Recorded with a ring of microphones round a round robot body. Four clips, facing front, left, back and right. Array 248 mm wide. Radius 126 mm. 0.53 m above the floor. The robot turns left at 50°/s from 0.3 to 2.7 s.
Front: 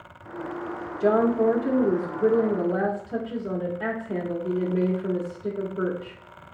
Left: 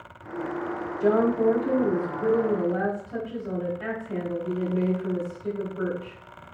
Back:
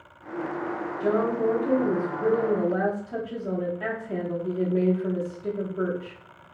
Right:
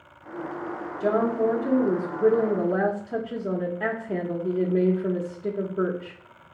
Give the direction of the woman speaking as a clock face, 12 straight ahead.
12 o'clock.